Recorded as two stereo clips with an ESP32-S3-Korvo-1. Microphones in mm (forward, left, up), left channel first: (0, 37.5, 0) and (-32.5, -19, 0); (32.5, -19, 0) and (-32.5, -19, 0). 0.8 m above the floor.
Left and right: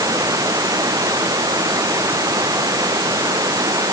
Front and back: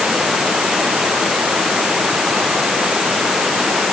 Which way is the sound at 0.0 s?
95° right.